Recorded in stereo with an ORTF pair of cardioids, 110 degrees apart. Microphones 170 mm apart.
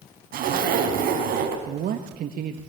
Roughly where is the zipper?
Ahead right.